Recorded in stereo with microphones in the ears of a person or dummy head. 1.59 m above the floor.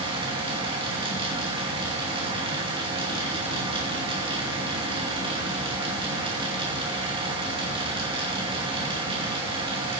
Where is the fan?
30° right (ahead or behind), 2.5 m.